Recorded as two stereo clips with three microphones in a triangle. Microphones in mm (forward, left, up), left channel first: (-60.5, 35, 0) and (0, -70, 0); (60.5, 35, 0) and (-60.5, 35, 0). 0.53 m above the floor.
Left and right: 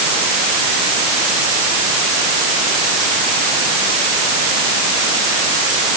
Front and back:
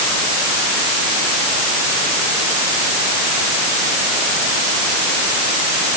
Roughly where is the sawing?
I don't hear sawing.